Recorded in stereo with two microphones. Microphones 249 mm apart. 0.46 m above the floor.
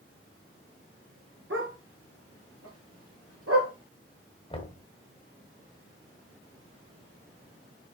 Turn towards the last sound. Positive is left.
turn(degrees=25)  # may be behind; listen again after turning